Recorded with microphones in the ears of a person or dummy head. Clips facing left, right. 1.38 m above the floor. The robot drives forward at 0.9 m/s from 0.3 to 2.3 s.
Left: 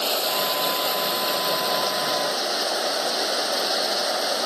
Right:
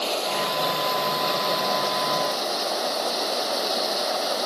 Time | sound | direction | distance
0.0 | running water | 15° left (ahead or behind) | ?